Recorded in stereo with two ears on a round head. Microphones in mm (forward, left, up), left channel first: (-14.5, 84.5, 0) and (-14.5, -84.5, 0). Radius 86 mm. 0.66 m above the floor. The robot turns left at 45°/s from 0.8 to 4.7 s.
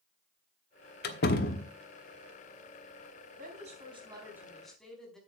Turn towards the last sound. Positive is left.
turn(degrees=175)